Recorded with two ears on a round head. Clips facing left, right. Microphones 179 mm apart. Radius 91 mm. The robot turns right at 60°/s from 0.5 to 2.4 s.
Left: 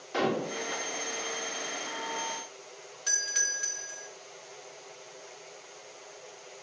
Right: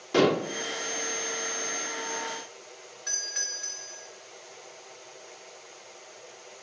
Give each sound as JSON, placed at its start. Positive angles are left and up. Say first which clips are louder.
{"t": 0.1, "sound": "dishes clattering", "louder": "right 7 dB", "side_deg": -55, "distance_m": 2.0}
{"t": 3.1, "sound": "a doorbell", "louder": "left 1 dB", "side_deg": 40, "distance_m": 3.0}